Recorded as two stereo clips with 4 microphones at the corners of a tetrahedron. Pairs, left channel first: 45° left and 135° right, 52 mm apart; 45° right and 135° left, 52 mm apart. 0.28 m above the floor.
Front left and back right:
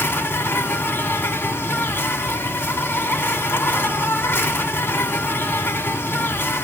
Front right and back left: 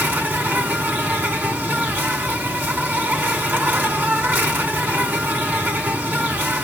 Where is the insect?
85° left, 1.5 m.